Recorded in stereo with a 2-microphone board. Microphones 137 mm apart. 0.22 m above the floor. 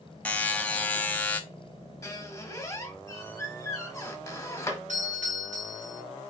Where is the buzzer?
10° left (ahead or behind), 0.6 m.